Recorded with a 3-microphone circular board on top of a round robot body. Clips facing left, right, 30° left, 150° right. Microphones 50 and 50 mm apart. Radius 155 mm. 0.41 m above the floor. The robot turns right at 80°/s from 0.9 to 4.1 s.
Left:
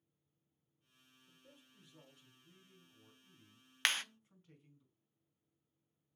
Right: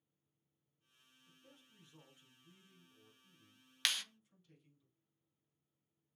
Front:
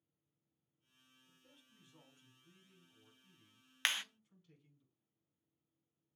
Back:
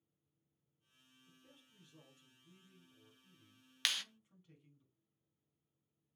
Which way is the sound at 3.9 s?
65° left.